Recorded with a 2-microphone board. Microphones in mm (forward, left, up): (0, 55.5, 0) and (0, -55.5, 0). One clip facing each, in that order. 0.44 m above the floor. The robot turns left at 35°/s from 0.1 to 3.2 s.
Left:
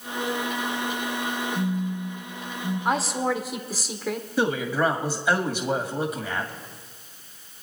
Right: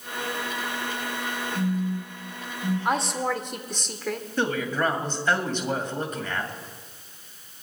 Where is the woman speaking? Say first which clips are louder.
Left 3 dB; centre (ahead or behind), 1.2 m; by 4.3 s 5° left (ahead or behind), 1.2 m.